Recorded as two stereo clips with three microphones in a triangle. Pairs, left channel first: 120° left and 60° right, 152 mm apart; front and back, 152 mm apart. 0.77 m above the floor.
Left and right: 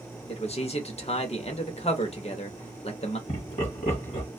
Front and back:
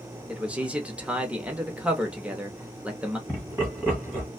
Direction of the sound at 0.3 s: 100° left.